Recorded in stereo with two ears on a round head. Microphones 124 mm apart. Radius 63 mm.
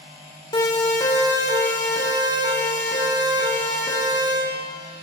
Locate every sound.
0.5 s a siren: 30° left (ahead or behind), 2 m; by 4.3 s 20° left (ahead or behind), 7.5 m